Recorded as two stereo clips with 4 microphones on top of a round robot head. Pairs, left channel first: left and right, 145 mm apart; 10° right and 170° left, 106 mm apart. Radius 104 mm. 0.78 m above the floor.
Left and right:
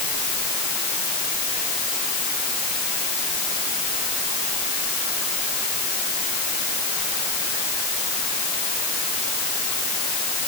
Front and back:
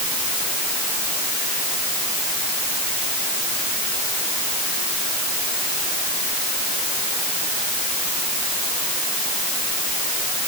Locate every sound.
Only background noise.